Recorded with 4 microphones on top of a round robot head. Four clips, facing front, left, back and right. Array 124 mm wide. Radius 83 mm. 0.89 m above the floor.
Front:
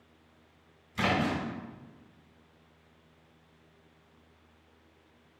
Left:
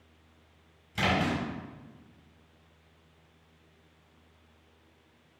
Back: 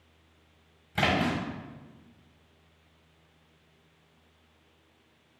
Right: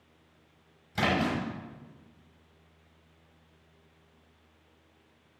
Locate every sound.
0.9 s a splash: 155° right, 5 m